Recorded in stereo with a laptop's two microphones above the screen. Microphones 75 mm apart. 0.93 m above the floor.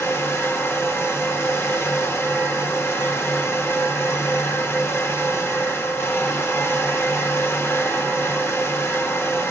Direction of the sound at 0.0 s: 35° left (ahead or behind).